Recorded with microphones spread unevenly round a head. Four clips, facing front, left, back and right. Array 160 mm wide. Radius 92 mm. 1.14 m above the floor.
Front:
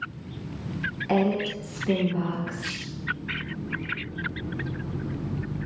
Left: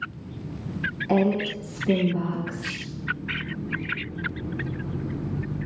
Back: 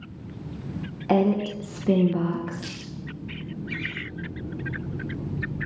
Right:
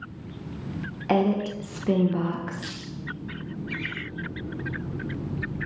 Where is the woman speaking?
160° left, 1.0 m.